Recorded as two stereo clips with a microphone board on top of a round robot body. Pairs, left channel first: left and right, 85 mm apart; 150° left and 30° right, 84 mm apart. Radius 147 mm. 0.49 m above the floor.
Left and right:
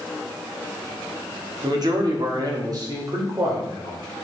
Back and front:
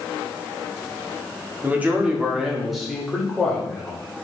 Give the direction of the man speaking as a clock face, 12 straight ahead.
3 o'clock.